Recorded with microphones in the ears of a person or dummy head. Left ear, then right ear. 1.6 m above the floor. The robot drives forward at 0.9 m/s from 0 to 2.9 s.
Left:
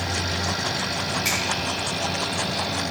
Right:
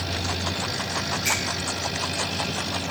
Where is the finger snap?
10° left (ahead or behind), 2.5 m.